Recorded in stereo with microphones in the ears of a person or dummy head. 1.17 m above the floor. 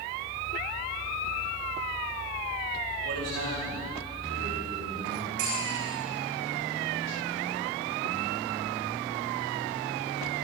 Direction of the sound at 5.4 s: 80° right.